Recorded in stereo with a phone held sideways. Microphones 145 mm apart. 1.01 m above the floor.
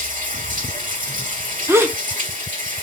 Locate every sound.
0.0 s running water: 70° right (ahead or behind), 1.8 m
1.7 s a gasp: 15° right (ahead or behind), 0.6 m